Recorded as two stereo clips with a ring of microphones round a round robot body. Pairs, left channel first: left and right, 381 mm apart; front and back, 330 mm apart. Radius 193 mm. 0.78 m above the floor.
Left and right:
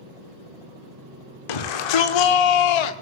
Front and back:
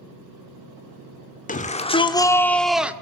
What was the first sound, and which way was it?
A shout, 65° left.